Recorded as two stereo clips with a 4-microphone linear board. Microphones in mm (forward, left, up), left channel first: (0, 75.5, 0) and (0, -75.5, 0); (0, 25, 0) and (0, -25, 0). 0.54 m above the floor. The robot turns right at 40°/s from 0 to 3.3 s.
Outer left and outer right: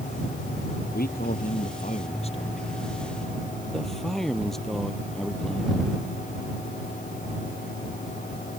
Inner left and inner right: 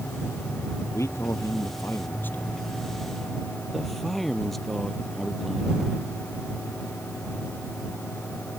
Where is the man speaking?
85° left; by 5.8 s straight behind.